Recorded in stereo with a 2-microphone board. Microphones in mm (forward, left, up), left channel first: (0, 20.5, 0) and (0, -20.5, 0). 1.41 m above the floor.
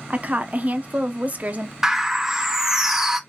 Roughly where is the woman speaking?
Right.